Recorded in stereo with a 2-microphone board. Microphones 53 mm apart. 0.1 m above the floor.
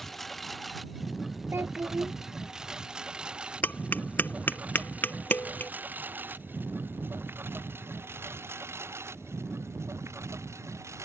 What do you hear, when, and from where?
0.0 s a lawn mower: 5° left (ahead or behind); by 11.1 s 60° right (ahead or behind)
1.5 s a child speaking: 50° right (ahead or behind)
3.6 s tapping: 35° left (ahead or behind)